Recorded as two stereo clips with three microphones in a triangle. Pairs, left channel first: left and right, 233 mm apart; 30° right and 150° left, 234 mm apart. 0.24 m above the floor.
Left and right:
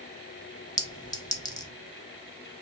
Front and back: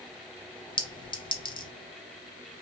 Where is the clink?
25° left, 0.7 m.